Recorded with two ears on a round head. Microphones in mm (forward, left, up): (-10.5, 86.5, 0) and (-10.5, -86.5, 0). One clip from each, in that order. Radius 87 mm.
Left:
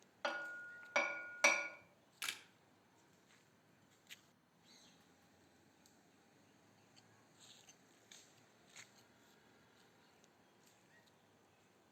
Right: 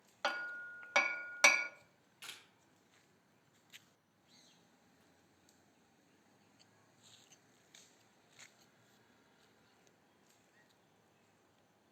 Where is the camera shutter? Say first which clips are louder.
Left 6 dB; 55° left (ahead or behind), 0.9 m.